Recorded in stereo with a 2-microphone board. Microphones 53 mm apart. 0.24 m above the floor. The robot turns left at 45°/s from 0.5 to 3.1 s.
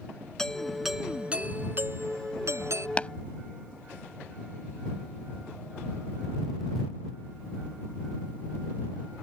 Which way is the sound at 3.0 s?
25° left (ahead or behind).